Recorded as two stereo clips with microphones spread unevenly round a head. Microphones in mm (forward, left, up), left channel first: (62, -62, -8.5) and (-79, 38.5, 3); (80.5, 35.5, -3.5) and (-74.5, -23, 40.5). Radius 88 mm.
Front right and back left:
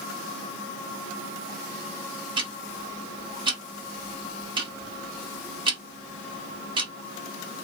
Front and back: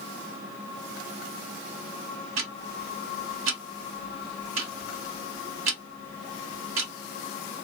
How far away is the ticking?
About 1.7 m.